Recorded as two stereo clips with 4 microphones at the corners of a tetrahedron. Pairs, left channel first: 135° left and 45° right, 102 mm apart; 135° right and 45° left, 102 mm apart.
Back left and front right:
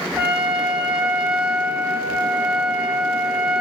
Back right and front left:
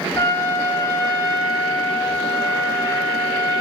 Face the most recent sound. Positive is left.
turn(degrees=-105)